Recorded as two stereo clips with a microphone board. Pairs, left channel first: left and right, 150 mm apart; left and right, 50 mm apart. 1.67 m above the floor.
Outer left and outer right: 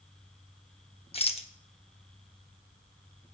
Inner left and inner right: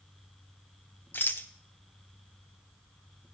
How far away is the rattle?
About 1.0 m.